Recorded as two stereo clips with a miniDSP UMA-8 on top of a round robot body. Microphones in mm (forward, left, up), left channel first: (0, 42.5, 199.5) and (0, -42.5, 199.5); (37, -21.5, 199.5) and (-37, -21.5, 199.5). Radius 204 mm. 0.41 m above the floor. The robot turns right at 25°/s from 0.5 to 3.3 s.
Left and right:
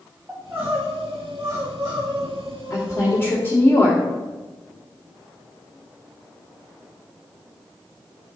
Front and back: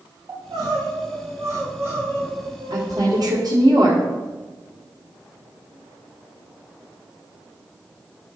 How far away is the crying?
About 3 m.